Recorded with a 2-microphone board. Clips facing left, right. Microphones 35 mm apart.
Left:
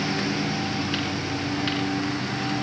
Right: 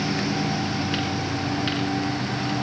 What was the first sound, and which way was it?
A lawn mower, 5° left (ahead or behind).